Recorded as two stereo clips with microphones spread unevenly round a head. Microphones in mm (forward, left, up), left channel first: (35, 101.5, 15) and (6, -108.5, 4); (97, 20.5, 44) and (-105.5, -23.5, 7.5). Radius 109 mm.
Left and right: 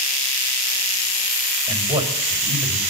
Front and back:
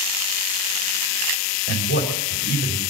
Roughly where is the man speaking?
Ahead right.